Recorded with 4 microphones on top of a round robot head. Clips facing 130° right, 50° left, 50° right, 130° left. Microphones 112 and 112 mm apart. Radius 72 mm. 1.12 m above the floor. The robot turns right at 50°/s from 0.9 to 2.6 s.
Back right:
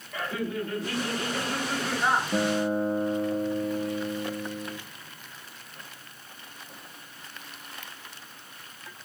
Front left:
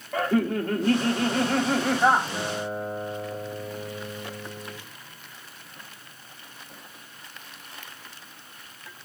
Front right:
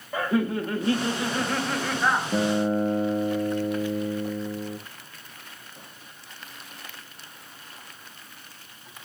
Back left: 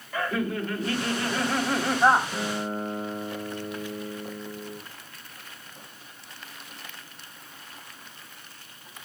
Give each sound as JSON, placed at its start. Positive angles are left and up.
{"t": 0.1, "sound": "laughter", "azimuth_deg": 15, "distance_m": 1.3}
{"t": 2.3, "sound": "a guitar", "azimuth_deg": -70, "distance_m": 0.8}